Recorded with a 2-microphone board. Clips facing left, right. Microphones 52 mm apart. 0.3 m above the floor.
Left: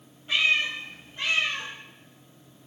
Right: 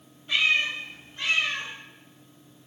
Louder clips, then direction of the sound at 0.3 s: Even; 15° left (ahead or behind).